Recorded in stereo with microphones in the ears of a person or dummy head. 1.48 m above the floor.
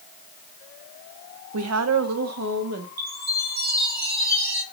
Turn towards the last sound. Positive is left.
turn(degrees=-50)  # may be behind; listen again after turning